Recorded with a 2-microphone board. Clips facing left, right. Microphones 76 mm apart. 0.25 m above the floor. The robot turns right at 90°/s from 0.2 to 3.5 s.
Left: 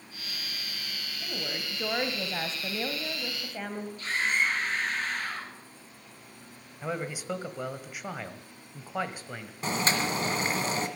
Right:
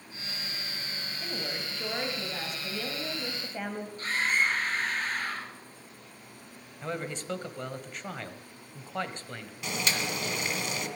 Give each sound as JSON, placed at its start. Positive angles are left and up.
{"t": 1.2, "sound": "a woman speaking", "azimuth_deg": -20, "distance_m": 1.4}
{"t": 4.0, "sound": "a scream", "side_deg": -40, "distance_m": 6.0}
{"t": 6.8, "sound": "a man speaking", "side_deg": 10, "distance_m": 1.2}
{"t": 9.6, "sound": "boiling", "side_deg": 40, "distance_m": 1.7}